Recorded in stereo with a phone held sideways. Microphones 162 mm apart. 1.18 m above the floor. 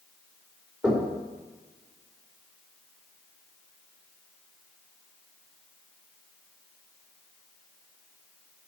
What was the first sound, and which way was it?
Knocking, 5° right (ahead or behind).